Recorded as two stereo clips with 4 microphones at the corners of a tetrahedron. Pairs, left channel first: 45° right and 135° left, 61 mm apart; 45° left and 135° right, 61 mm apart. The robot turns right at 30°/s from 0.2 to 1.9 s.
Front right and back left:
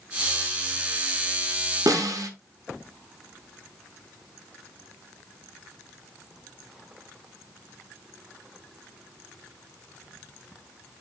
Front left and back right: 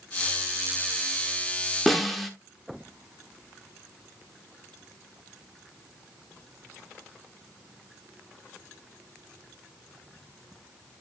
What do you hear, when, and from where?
1.9 s a snare drum: 130° left, 1.2 m; by 2.3 s 135° left, 1.2 m